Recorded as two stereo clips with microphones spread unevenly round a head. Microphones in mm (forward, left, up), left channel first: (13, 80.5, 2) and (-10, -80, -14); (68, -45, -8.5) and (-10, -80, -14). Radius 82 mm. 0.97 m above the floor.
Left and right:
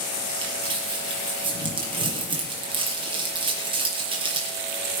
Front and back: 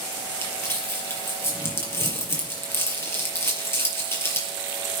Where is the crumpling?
35° right, 5.5 m.